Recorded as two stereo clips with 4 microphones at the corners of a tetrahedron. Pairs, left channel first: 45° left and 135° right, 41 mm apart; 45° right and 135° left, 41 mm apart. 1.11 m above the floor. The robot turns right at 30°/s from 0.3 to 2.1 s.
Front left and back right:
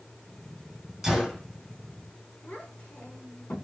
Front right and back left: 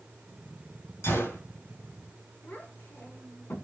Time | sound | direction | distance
1.0 | a gunshot | 55° right | 7 m
2.4 | a child speaking | 5° right | 6.5 m